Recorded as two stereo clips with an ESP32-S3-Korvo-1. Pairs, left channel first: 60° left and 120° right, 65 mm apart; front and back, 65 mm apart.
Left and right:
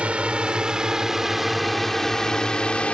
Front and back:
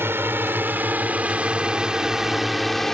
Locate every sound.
0.0 s a drone: 175° right; by 3.0 s 75° left